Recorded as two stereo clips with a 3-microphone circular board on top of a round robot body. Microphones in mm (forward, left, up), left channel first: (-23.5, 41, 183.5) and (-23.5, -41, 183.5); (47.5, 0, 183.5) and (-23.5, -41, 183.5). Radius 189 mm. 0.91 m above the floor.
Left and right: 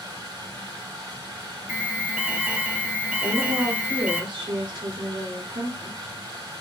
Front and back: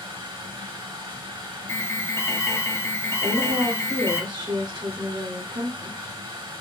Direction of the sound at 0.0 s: 135° right.